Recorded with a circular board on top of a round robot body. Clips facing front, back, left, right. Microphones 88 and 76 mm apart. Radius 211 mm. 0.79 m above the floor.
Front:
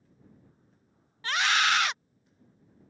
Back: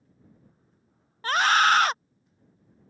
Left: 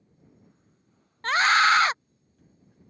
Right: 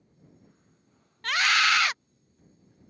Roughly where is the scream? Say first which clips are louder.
Back 6 dB, left 5 dB; behind left.